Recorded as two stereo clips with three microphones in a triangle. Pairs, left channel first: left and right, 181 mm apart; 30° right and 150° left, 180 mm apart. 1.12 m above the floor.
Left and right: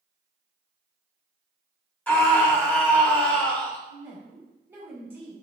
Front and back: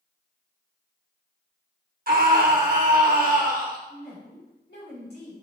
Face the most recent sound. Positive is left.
turn(degrees=-10)